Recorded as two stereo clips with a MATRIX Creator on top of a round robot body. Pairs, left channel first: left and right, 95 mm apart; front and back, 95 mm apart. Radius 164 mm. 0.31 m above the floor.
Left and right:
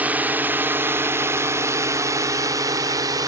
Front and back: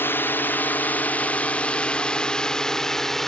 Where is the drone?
35° right; by 3.3 s 85° right.